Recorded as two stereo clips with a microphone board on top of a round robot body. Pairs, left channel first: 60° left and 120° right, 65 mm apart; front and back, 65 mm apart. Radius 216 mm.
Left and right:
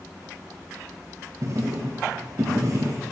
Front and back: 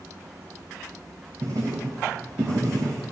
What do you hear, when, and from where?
1.4 s writing: 155° right, 0.6 m